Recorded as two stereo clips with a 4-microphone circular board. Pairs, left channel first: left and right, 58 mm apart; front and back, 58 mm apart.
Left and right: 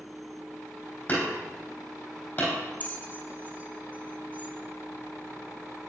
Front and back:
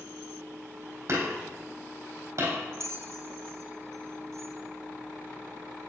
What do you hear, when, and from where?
1.1 s hammering: 145° left, 4 m
2.8 s a bell: 150° left, 1.3 m